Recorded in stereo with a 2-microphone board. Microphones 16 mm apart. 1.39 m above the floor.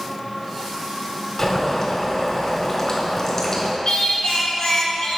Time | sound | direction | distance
1.4 | boiling | 40° left (ahead or behind) | 2 m
3.9 | singing | 70° left (ahead or behind) | 1.2 m